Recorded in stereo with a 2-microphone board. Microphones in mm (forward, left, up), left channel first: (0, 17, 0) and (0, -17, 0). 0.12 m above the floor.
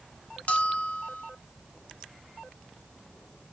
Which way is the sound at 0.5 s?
45° left (ahead or behind).